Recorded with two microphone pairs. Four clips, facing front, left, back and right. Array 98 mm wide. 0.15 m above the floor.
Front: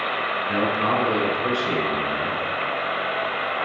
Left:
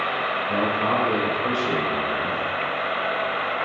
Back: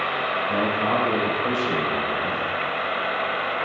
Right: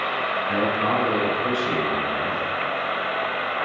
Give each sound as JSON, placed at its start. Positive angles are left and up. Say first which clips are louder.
{"t": 0.5, "sound": "a man speaking", "louder": "even, front 2 dB", "azimuth_deg": -35, "distance_m": 1.3}